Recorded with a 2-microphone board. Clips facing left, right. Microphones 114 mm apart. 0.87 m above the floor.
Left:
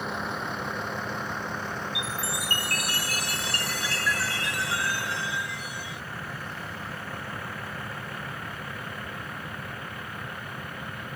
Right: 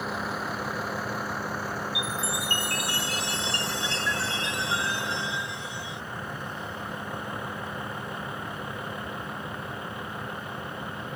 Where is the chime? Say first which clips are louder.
Right 1 dB; 20° right (ahead or behind).